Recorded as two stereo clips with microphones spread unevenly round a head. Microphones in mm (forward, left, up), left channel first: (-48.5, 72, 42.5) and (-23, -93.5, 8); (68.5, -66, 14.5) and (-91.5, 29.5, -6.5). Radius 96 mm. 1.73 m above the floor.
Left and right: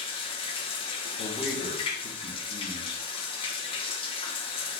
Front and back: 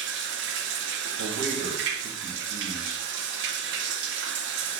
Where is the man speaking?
120° left, 2.5 m.